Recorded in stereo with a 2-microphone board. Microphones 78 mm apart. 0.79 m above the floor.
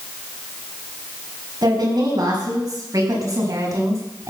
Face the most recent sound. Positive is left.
turn(degrees=-45)  # may be behind; listen again after turning